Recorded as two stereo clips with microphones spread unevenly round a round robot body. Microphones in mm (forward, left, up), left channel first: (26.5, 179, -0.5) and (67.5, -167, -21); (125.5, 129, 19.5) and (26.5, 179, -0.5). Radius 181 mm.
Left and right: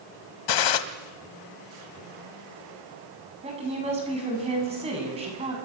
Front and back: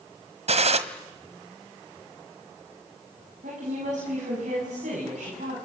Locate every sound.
0.5 s a gunshot: 125° left, 1.6 m
3.4 s a woman speaking: 160° right, 7.5 m